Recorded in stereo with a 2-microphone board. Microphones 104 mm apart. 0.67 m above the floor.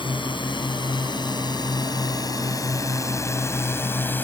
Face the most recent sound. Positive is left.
turn(degrees=15)  # may be behind; listen again after turning